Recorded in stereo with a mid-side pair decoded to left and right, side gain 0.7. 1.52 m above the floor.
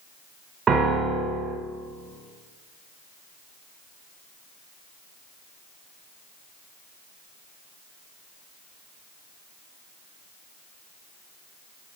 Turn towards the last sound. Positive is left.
turn(degrees=-30)